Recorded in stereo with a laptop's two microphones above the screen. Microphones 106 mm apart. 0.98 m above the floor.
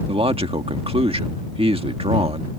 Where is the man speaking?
60° right (ahead or behind).